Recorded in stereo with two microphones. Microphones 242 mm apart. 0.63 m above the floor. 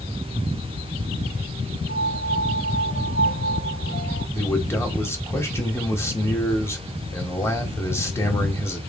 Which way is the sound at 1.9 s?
45° left (ahead or behind).